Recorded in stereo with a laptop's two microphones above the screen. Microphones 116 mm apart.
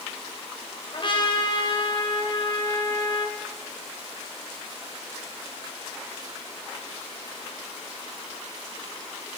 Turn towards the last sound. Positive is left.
turn(degrees=45)  # may be behind; listen again after turning